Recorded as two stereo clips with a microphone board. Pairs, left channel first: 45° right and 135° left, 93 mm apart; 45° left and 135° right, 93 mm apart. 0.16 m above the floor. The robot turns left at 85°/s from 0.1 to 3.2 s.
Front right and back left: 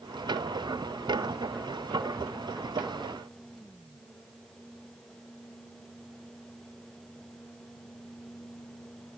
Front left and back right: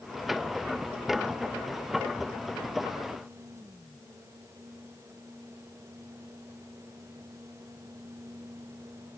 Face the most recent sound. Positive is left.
No sound to turn to.